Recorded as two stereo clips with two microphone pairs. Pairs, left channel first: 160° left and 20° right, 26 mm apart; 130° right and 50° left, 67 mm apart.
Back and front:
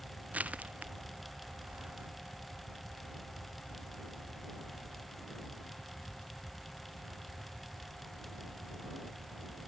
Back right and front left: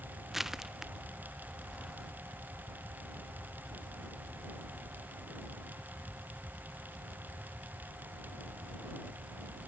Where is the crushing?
35° right.